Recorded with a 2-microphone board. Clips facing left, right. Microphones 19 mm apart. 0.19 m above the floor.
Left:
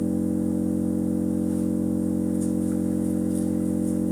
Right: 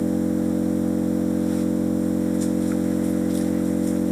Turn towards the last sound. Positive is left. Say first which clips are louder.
# right 3 dB
turn(degrees=-65)  # may be behind; listen again after turning